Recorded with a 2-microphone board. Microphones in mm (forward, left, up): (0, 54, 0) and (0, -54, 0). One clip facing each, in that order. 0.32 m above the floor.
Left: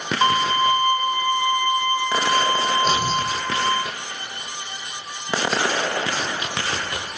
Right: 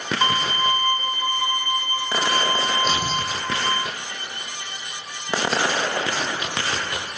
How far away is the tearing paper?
About 2.5 m.